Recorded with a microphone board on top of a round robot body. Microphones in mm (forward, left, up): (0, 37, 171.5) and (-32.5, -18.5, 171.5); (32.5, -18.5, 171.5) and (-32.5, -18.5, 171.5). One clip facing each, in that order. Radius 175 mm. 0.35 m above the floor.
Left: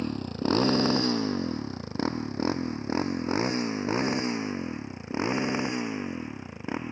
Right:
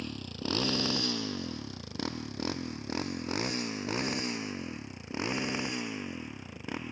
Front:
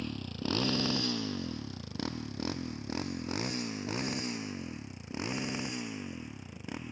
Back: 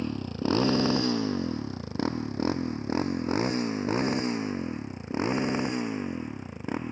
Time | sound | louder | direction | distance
0.0 | a motorcycle | left 8 dB, back 7 dB | 115° left | ?